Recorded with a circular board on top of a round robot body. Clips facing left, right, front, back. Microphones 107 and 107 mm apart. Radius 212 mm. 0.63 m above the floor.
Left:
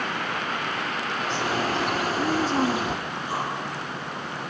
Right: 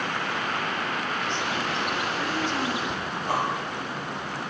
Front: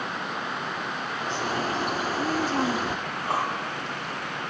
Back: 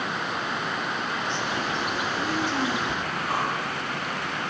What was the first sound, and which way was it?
A bird, 45° left.